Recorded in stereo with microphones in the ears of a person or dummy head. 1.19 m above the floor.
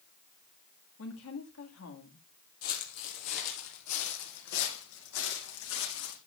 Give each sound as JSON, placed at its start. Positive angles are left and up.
{"t": 1.0, "sound": "a woman speaking", "side_deg": 70, "distance_m": 2.5}
{"t": 2.6, "sound": "footsteps", "side_deg": 45, "distance_m": 2.0}